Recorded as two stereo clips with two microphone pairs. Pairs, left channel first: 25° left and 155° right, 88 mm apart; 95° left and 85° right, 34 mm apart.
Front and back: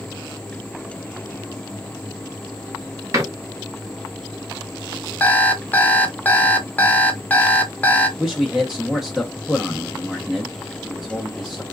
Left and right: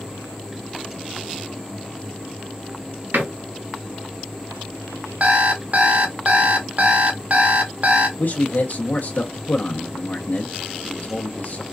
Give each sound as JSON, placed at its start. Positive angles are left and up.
{"t": 3.1, "sound": "a door slam", "azimuth_deg": -100, "distance_m": 1.1}
{"t": 5.2, "sound": "an alarm clock", "azimuth_deg": -45, "distance_m": 0.6}
{"t": 8.2, "sound": "a man speaking", "azimuth_deg": 130, "distance_m": 0.7}